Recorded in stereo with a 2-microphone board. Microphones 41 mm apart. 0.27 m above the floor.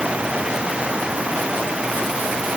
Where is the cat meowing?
No cat meowing in this recording.